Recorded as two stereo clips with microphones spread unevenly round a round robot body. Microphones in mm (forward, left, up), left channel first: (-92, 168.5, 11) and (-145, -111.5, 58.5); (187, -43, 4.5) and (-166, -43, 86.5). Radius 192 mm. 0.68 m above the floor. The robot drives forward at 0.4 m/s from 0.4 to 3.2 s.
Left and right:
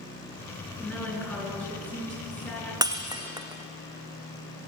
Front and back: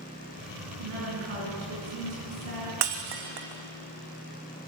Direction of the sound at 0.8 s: 165° left.